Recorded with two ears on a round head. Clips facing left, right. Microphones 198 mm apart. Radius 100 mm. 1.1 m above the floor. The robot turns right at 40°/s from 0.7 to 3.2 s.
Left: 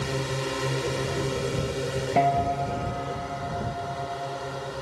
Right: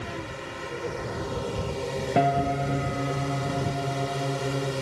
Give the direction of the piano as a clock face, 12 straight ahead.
5 o'clock.